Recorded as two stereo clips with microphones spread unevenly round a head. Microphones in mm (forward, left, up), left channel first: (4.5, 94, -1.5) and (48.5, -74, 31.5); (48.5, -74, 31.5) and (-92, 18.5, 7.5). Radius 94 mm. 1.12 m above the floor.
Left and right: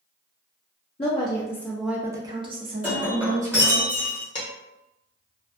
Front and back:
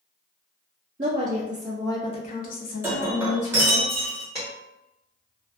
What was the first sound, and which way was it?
A woman speaking, 125° left.